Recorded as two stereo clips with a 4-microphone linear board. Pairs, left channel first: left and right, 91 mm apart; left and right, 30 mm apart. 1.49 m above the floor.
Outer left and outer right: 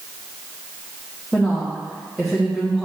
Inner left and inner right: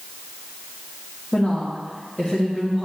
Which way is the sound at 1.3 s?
5° left (ahead or behind).